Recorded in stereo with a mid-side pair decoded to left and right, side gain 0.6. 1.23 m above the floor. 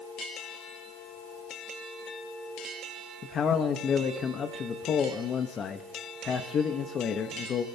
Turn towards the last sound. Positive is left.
turn(degrees=40)